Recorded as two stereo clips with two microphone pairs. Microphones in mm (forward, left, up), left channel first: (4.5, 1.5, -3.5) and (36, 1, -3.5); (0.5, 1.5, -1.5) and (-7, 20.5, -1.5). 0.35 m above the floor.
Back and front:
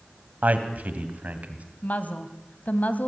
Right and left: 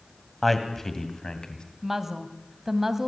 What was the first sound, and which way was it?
A man speaking, 10° left.